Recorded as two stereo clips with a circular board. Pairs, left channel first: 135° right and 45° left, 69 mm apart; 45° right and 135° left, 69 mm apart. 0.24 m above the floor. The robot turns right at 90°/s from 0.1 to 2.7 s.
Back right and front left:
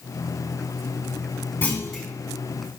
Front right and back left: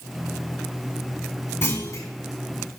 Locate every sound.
1.6 s a clunk: 85° right, 2.5 m; by 2.1 s 40° right, 2.5 m